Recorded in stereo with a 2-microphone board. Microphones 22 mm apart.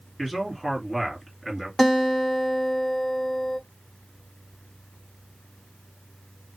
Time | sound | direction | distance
0.2 | a man speaking | 5° left (ahead or behind) | 2 m
1.8 | a guitar | 30° left (ahead or behind) | 1.8 m